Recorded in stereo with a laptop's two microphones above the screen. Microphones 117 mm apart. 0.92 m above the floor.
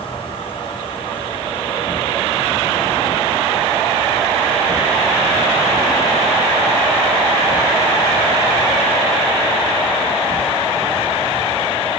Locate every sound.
0.0 s an insect: 50° left (ahead or behind), 3.5 m